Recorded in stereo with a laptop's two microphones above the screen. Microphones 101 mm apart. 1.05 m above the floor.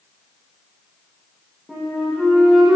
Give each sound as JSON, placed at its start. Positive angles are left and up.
{"t": 1.7, "sound": "a flute", "side_deg": 0, "distance_m": 1.8}